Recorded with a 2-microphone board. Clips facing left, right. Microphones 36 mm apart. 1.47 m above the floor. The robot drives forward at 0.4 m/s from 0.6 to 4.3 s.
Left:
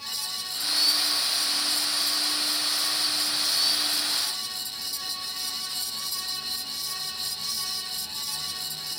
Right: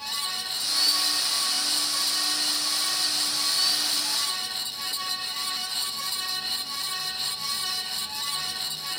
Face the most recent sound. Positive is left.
No sound to turn to.